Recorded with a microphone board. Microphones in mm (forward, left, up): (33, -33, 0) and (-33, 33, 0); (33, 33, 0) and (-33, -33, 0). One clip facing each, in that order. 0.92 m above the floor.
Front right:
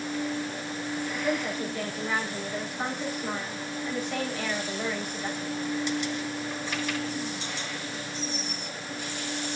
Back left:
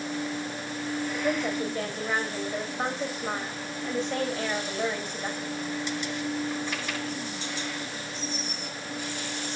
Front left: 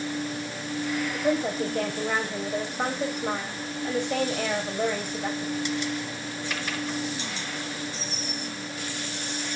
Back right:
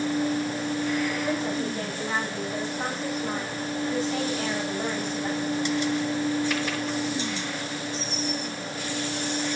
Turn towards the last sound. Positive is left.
turn(degrees=75)